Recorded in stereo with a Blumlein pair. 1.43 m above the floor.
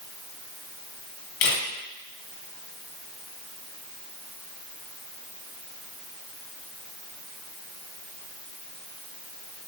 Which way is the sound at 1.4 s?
45° left.